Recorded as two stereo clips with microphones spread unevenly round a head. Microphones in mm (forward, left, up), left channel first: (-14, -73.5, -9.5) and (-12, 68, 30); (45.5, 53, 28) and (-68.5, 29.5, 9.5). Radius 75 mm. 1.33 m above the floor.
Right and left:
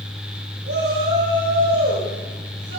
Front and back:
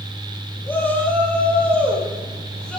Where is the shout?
85° left, 8 m; by 2.8 s 95° left, 8.5 m.